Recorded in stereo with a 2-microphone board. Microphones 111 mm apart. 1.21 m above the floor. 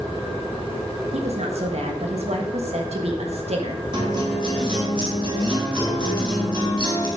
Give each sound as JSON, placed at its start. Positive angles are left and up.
{"t": 1.1, "sound": "a woman speaking", "side_deg": -70, "distance_m": 1.6}
{"t": 3.9, "sound": "a guitar", "side_deg": -40, "distance_m": 2.0}